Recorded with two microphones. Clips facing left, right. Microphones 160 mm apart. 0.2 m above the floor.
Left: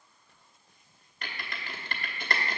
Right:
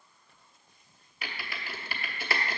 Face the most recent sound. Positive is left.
turn(degrees=-5)  # may be behind; listen again after turning